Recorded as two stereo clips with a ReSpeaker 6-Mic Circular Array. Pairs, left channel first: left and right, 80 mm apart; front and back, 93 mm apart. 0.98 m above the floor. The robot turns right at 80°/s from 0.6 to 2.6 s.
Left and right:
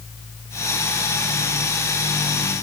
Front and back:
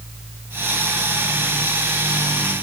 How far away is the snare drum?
I don't hear a snare drum.